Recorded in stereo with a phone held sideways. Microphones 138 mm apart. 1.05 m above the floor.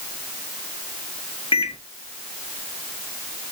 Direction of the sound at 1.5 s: 45° left (ahead or behind).